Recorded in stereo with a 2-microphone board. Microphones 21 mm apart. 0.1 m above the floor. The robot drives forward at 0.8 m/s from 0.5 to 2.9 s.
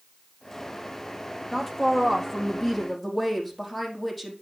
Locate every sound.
1.5 s a woman speaking: 15° left (ahead or behind), 3 m; by 4.3 s 10° left (ahead or behind), 4 m